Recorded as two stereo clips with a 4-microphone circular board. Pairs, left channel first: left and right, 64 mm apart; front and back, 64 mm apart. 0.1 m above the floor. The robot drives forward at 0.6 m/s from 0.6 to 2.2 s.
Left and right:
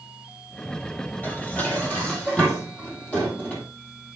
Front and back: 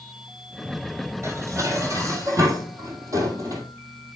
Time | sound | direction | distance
1.2 | dishes clattering | 150° left | 1.7 m